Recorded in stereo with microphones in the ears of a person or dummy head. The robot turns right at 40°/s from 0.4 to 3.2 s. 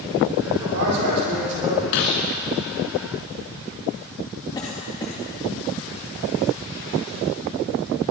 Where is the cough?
25° left (ahead or behind), 2.5 m.